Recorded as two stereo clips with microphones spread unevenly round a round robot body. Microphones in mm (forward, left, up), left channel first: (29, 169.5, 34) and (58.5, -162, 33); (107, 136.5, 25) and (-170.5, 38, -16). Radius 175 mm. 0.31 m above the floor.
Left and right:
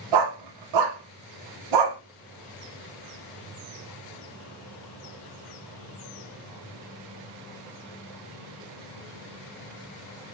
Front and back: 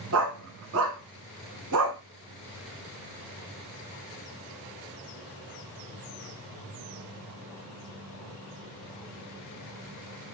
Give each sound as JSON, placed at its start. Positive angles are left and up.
{"t": 0.1, "sound": "a dog barking", "azimuth_deg": -110, "distance_m": 0.8}